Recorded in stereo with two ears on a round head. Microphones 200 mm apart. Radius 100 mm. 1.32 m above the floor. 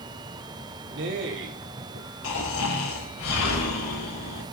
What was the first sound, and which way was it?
A man speaking, 55° right (ahead or behind).